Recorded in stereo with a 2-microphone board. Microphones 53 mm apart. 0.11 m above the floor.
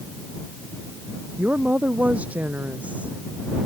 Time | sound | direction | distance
1.4 | a woman speaking | 25° right (ahead or behind) | ?